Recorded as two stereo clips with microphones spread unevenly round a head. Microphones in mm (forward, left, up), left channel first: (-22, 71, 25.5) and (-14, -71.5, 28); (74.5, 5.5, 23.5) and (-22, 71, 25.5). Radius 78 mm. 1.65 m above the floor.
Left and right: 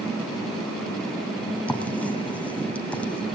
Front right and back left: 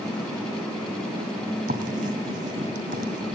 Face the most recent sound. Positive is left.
turn(degrees=175)